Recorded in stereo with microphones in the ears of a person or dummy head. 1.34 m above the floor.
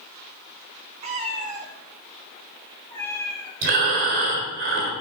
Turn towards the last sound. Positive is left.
turn(degrees=-50)  # may be behind; listen again after turning